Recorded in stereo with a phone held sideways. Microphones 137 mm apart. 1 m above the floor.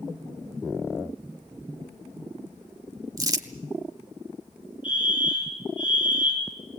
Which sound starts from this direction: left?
A fire alarm, at 4.8 s.